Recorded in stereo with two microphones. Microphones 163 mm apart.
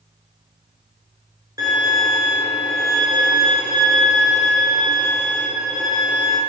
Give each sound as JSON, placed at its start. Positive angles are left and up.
{"t": 1.6, "sound": "a violin", "side_deg": -20, "distance_m": 0.8}